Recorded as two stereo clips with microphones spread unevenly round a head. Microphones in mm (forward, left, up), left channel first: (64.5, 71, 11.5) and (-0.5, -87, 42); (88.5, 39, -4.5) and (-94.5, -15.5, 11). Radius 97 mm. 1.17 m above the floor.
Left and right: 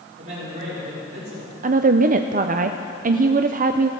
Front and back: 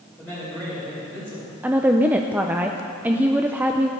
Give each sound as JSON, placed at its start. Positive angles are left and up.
{"t": 0.2, "sound": "a man speaking", "azimuth_deg": -80, "distance_m": 5.0}
{"t": 1.6, "sound": "a woman speaking", "azimuth_deg": -80, "distance_m": 0.5}